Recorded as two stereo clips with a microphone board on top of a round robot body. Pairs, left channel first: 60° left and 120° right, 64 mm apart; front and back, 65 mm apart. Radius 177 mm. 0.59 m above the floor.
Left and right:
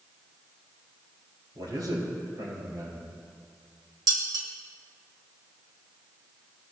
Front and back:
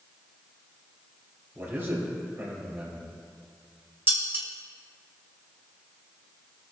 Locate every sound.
1.6 s a man speaking: 125° right, 5.5 m
4.1 s dishes clattering: 125° right, 2 m